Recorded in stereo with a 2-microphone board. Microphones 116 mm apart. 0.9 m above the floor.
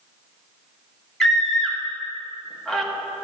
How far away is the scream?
About 1.1 m.